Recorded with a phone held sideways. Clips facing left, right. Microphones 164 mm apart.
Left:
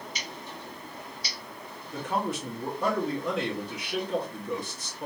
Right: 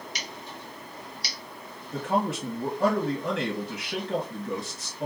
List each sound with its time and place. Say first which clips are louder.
0.1 s scissors: even; 70° right (ahead or behind), 1.5 m
1.9 s a man speaking: right 3 dB; 65° right (ahead or behind), 1.5 m